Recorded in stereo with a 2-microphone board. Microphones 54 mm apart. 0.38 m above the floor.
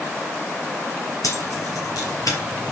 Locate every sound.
1.2 s keys jangling: 85° left, 5 m; by 2.7 s 80° left, 4 m